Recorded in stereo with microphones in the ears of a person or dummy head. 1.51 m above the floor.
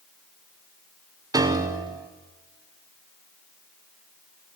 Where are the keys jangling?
No keys jangling in this recording.